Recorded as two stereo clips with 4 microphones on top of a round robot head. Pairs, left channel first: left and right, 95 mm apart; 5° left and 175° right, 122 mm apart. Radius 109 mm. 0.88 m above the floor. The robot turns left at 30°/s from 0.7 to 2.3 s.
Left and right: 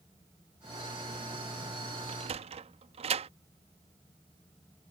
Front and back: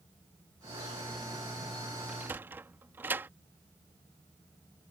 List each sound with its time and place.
2.1 s a sliding door: 95° right; by 3.3 s 100° right